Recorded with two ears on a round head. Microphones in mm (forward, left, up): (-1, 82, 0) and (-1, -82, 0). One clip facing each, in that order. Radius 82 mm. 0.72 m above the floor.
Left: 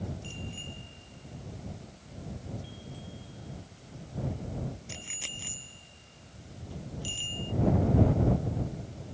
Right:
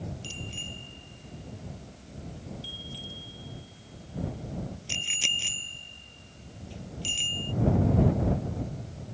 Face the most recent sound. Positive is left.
turn(degrees=-25)  # may be behind; listen again after turning